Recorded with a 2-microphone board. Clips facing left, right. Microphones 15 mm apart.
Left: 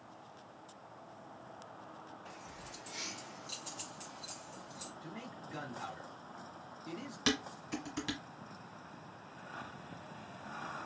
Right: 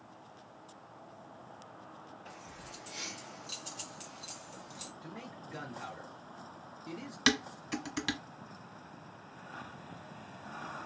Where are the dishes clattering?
35° right (ahead or behind), 1.0 m.